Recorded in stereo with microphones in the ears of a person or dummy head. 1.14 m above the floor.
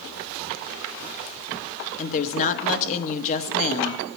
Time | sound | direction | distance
2.0 | a woman speaking | 40° left (ahead or behind) | 1.0 m